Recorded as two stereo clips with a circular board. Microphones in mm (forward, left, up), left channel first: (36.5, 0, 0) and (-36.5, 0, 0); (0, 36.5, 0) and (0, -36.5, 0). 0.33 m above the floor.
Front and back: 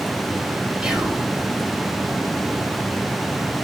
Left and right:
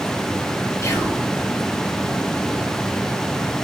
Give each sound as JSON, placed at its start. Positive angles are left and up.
{"t": 0.8, "sound": "whispering", "azimuth_deg": 105, "distance_m": 1.2}